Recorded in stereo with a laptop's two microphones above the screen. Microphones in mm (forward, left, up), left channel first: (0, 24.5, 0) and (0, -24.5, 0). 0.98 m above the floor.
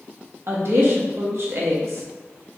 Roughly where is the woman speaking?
Right.